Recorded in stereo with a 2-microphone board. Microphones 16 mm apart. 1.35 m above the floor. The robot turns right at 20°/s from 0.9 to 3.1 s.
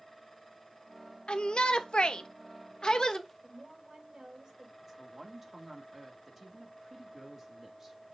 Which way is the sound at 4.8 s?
15° right (ahead or behind).